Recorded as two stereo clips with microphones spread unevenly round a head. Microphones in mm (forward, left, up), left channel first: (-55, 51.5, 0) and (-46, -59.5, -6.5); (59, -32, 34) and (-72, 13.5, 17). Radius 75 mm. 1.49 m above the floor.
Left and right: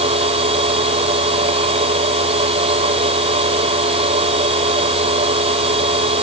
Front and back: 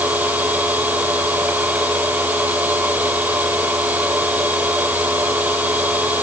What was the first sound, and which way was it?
A machine running, 120° right.